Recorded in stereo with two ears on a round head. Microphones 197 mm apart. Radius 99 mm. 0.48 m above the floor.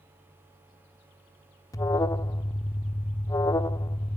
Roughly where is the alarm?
Centre.